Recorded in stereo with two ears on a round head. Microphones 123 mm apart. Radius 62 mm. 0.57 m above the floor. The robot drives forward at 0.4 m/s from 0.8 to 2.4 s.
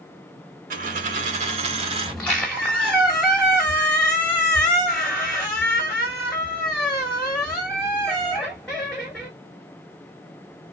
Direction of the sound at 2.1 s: 10° left (ahead or behind).